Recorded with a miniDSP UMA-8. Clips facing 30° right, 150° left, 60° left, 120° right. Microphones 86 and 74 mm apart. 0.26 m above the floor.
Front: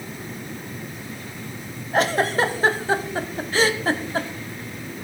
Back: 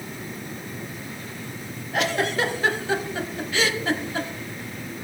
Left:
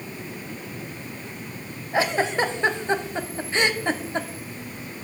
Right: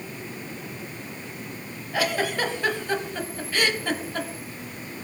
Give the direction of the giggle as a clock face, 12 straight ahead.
12 o'clock.